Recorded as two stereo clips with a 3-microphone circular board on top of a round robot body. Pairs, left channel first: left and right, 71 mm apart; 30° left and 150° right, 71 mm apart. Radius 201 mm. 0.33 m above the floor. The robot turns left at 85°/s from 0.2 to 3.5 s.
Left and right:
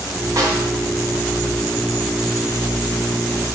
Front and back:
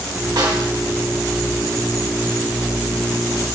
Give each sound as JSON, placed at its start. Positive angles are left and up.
{"t": 0.4, "sound": "a snare drum", "azimuth_deg": -135, "distance_m": 3.5}